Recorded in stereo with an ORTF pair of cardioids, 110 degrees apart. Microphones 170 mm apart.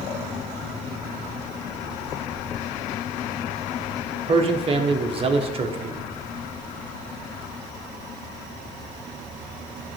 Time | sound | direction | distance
4.3 | a man speaking | 35° right | 1.3 m